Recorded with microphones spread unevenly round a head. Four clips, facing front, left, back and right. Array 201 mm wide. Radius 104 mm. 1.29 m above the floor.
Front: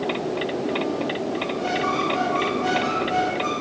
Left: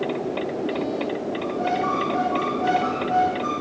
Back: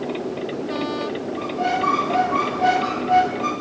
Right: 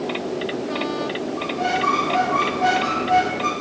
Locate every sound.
1.4 s a squeak: 140° right, 8 m